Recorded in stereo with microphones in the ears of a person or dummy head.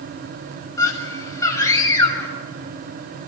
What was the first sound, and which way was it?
A scream, 10° left (ahead or behind).